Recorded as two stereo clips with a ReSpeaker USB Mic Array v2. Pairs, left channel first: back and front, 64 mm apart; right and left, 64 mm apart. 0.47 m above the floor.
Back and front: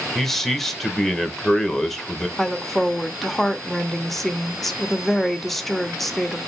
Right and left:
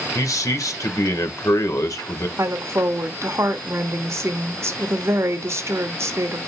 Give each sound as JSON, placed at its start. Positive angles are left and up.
{"t": 0.1, "sound": "a man speaking", "azimuth_deg": -95, "distance_m": 1.3}
{"t": 2.4, "sound": "a woman speaking", "azimuth_deg": 95, "distance_m": 1.0}